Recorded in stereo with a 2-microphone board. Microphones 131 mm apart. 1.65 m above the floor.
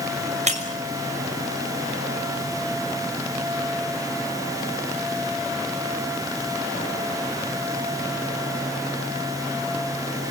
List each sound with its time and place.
0.5 s breaking glass: 60° right (ahead or behind), 5.5 m